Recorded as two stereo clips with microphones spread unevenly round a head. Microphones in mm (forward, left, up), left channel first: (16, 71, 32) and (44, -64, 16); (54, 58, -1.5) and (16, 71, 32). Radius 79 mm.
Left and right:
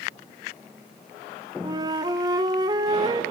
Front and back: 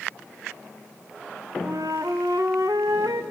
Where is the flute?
145° right, 0.6 m.